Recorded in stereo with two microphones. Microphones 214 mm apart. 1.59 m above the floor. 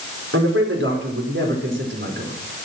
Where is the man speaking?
75° right (ahead or behind), 4.5 m; by 2.3 s 55° right (ahead or behind), 4.5 m.